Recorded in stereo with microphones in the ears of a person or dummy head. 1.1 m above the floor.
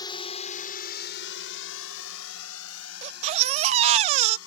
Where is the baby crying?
35° right (ahead or behind).